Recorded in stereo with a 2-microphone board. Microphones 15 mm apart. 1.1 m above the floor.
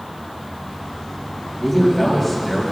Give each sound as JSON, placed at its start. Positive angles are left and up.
{"t": 1.6, "sound": "a man speaking", "side_deg": 0, "distance_m": 5.5}